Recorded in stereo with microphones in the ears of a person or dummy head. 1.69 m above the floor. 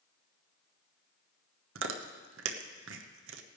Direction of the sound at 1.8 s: 80° right.